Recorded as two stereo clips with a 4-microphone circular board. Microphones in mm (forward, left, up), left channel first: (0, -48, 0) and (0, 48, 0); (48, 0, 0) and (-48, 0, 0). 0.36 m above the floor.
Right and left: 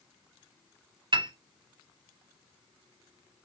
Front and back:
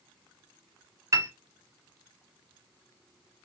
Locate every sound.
1.1 s a piano: 125° left, 0.5 m